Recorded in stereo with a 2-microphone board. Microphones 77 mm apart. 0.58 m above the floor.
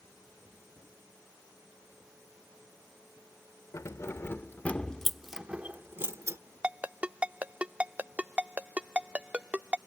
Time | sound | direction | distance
3.7 | keys jangling | 45° left (ahead or behind) | ?
6.6 | a ringtone | 15° right (ahead or behind) | ?